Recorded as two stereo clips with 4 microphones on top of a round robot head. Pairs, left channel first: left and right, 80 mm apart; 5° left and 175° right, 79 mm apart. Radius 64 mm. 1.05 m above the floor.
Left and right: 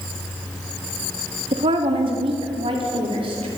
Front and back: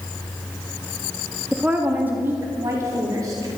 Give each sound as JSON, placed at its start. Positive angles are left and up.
{"t": 1.5, "sound": "a woman speaking", "azimuth_deg": -90, "distance_m": 1.7}